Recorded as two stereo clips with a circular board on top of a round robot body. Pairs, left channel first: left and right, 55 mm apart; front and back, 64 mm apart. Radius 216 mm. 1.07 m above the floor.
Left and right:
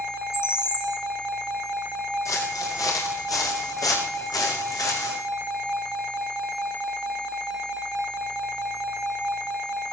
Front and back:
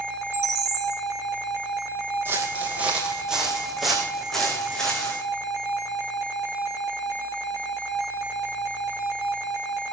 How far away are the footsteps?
About 2 m.